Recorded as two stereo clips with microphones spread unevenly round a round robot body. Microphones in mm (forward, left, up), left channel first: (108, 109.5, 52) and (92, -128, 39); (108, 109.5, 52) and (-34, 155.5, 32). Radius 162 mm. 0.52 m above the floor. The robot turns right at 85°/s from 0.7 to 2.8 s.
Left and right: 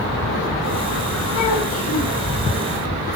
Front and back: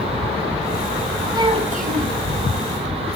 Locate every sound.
1.3 s a child speaking: 95° left, 3 m; by 2.2 s 170° left, 3 m